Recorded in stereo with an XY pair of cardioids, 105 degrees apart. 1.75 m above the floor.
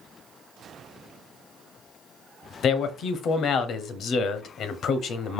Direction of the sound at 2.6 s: 65° left.